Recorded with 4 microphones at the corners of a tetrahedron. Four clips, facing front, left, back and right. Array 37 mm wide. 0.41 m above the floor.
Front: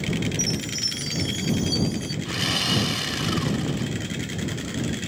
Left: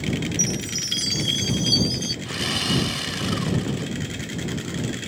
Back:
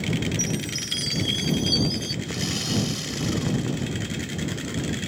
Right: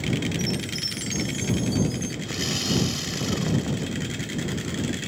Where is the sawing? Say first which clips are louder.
Left 2 dB, front 8 dB; 40° left.